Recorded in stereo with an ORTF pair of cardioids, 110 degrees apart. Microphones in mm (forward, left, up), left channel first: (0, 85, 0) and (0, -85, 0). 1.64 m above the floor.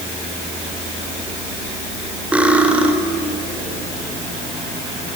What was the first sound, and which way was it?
Cutlery clinking, 10° right.